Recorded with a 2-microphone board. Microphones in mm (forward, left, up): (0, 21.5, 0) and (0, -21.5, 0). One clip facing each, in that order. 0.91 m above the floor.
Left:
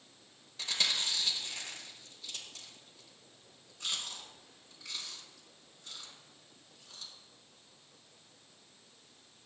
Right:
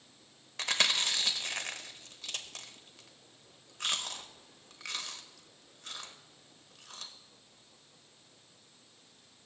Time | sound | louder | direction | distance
0.6 | chewing | right 4 dB | 65° right (ahead or behind) | 0.8 m